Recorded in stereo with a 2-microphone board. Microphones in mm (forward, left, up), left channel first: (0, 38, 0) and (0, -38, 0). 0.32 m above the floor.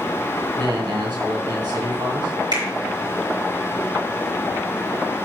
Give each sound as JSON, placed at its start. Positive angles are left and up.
{"t": 0.6, "sound": "a man speaking", "side_deg": -75, "distance_m": 3.0}
{"t": 2.5, "sound": "a finger snap", "side_deg": -75, "distance_m": 4.5}